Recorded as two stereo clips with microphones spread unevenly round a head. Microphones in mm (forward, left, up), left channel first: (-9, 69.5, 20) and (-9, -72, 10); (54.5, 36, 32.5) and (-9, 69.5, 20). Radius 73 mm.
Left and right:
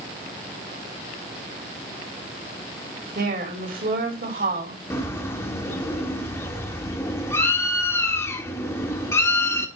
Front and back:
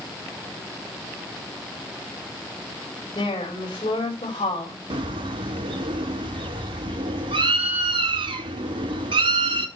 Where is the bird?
160° left, 1.4 m.